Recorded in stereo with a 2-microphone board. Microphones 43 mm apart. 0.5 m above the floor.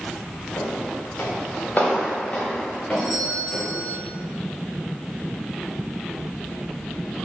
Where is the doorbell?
5° right (ahead or behind), 3.5 m.